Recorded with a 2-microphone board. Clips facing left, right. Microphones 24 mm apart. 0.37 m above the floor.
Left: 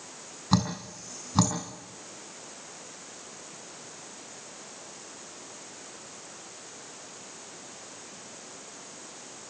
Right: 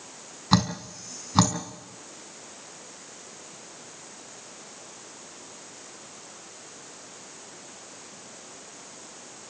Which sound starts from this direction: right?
Dripping, at 0.5 s.